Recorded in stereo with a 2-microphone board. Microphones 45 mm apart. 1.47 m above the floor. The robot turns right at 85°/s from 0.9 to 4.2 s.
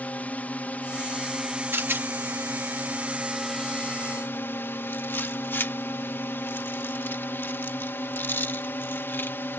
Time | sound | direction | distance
0.0 | a drone | 140° left | ?
1.7 | a rattle | 55° right (ahead or behind) | ?